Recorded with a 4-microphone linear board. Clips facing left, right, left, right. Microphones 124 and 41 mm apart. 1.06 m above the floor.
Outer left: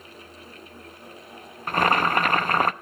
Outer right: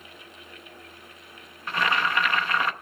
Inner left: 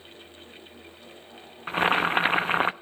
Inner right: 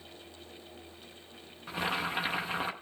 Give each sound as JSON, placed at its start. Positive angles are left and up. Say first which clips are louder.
{"t": 1.7, "sound": "boiling", "louder": "outer left 5 dB, inner left 10 dB", "side_deg": 45, "distance_m": 0.6}